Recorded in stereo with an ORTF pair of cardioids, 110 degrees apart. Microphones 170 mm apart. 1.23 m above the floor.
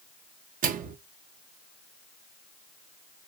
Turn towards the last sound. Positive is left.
turn(degrees=-55)